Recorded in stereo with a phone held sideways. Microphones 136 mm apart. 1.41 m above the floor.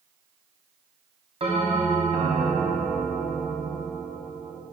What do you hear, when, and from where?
1.4 s a bell: 45° right (ahead or behind), 0.8 m